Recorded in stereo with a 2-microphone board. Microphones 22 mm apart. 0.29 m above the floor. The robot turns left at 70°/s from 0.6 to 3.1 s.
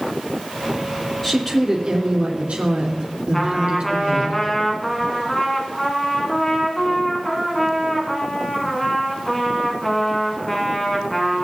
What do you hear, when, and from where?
1.2 s a woman speaking: 15° left, 3.5 m; by 4.3 s 115° right, 3.5 m
3.3 s a trumpet: 10° left (ahead or behind), 2 m